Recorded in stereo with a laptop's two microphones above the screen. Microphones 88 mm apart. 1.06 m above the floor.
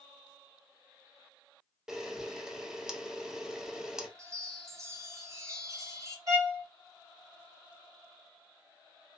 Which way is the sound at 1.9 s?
5° right (ahead or behind).